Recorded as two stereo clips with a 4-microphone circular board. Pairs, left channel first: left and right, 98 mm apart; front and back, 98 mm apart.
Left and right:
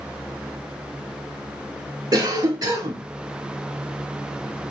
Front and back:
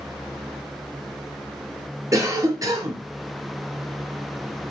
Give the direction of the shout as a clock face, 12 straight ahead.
I don't hear a shout.